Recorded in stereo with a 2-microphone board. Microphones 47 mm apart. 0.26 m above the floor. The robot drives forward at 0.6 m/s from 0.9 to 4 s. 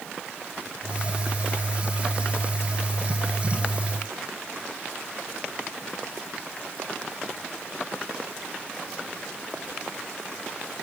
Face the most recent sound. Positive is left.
No sound to turn to.